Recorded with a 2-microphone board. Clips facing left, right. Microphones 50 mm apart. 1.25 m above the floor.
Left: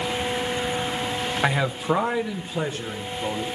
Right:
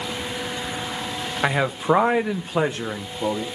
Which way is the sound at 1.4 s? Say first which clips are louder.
Right 4 dB; 5° right (ahead or behind).